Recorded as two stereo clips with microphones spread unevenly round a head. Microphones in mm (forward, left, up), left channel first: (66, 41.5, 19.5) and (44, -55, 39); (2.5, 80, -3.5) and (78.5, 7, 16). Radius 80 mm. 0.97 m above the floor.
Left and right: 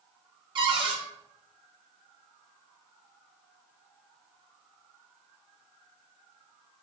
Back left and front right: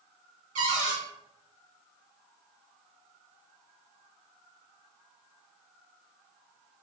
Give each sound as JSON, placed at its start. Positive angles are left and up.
{"t": 0.6, "sound": "a cupboard door", "azimuth_deg": -55, "distance_m": 1.5}